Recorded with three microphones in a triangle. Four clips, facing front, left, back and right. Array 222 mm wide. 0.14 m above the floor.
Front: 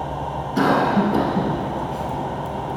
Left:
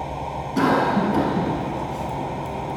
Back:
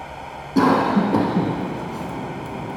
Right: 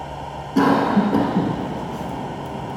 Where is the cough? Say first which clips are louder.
Right 3 dB, back 1 dB; 145° right, 1.3 m.